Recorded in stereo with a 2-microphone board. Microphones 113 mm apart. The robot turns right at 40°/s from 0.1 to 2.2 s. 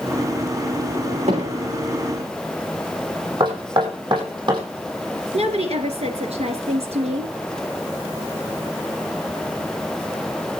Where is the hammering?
75° right (ahead or behind), 7.5 m; by 1.8 s 60° right (ahead or behind), 7.5 m.